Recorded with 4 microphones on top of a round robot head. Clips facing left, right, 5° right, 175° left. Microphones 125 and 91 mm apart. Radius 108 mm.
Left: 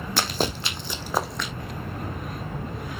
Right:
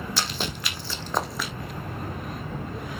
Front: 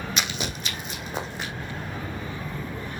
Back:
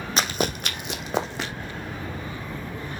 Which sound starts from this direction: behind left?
Running footsteps, at 0.2 s.